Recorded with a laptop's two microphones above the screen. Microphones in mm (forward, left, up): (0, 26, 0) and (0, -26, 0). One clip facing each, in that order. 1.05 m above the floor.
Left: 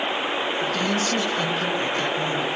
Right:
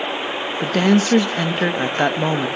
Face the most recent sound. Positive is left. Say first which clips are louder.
# right 11 dB
turn(degrees=-65)  # may be behind; listen again after turning